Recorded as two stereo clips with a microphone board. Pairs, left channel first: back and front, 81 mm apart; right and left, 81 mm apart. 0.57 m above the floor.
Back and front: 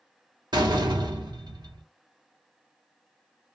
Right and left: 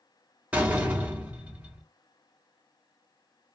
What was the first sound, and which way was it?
A door slam, 20° left.